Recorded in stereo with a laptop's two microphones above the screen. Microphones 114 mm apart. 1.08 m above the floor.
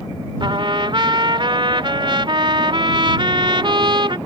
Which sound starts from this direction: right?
A trumpet, at 0.4 s.